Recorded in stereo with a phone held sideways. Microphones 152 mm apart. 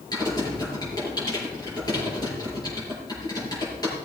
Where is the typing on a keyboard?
25° left (ahead or behind), 6 m.